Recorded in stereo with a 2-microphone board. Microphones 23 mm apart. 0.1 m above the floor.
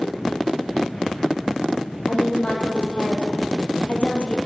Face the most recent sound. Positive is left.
turn(degrees=60)  # may be behind; listen again after turning